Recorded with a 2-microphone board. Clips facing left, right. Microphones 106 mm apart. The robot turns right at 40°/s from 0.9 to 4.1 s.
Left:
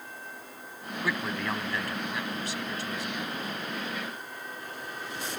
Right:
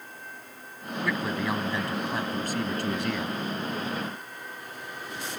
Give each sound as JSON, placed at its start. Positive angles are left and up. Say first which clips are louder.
{"t": 1.0, "sound": "a man speaking", "louder": "right 3 dB", "azimuth_deg": 175}